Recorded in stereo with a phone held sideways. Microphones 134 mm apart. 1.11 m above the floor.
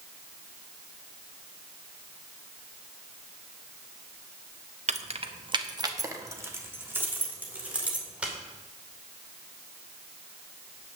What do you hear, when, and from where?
4.9 s keys jangling: 55° right (ahead or behind), 0.6 m; by 8.3 s 10° right (ahead or behind), 2.5 m